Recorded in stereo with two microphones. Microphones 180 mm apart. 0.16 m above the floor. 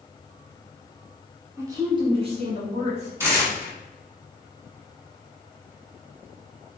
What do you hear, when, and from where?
1.6 s a woman speaking: 15° right (ahead or behind), 1.4 m; by 3.1 s 45° right (ahead or behind), 1.7 m
3.2 s tearing paper: 15° right (ahead or behind), 1.3 m